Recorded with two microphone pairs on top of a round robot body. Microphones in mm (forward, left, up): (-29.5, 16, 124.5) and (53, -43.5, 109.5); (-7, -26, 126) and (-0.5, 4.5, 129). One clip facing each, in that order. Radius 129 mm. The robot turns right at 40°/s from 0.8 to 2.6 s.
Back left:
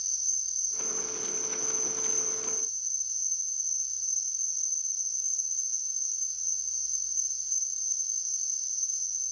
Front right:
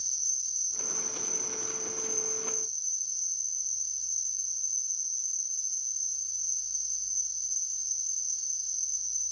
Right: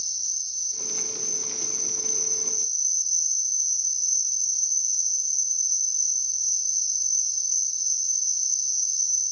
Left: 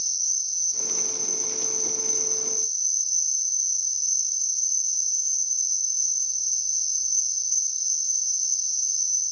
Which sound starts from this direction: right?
An insect, at 0.0 s.